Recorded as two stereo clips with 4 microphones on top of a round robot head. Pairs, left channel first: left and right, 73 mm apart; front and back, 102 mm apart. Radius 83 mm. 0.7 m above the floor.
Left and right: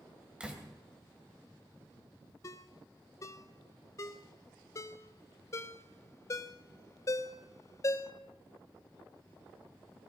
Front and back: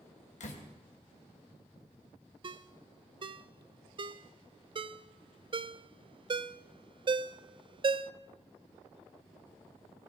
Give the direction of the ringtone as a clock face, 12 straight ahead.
7 o'clock.